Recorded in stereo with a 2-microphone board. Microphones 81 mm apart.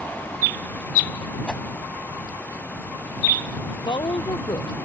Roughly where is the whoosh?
Centre.